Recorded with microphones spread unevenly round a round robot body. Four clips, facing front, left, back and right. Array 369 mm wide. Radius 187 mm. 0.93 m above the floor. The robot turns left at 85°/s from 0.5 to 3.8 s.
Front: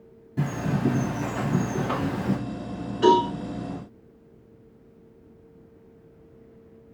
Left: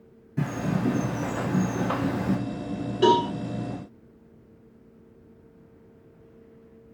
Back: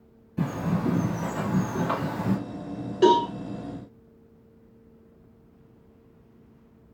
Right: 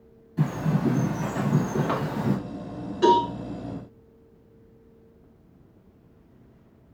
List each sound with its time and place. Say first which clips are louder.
0.4 s a bird: right 1 dB, front 1 dB; 25° left, 2.5 m; by 2.4 s 135° right, 2.5 m
3.0 s a cowbell: right 1 dB, front 1 dB; 155° left, 1.9 m; by 3.3 s 130° left, 1.9 m